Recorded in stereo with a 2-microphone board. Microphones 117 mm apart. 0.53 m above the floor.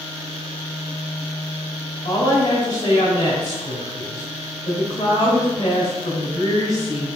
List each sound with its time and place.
2.0 s a woman speaking: 40° left (ahead or behind), 1.8 m